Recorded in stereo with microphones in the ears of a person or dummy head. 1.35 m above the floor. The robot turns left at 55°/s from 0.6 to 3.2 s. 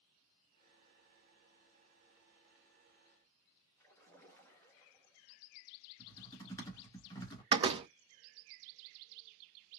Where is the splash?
10° left (ahead or behind), 1.6 m.